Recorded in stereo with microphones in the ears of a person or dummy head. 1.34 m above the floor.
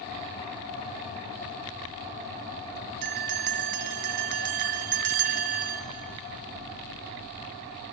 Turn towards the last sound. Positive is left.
turn(degrees=-50)  # may be behind; listen again after turning